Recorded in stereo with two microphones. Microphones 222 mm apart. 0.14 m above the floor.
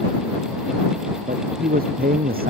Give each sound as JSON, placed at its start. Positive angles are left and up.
{"t": 1.3, "sound": "a man speaking", "side_deg": -40}